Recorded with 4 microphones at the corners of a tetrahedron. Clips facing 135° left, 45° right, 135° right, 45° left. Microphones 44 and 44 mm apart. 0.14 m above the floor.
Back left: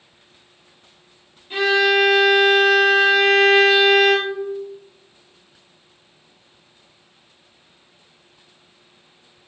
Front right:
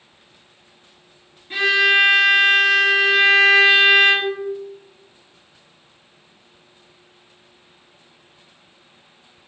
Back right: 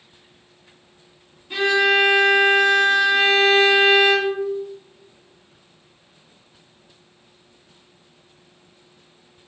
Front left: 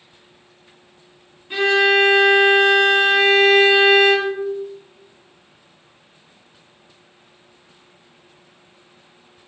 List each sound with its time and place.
1.5 s a violin: 5° right, 1.8 m